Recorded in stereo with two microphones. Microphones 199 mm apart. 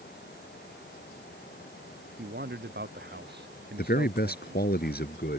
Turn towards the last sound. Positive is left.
turn(degrees=55)  # may be behind; listen again after turning